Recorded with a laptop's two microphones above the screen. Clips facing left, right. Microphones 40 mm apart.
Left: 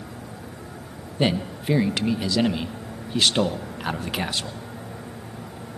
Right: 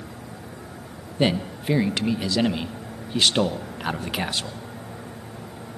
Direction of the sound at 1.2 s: 5° right (ahead or behind).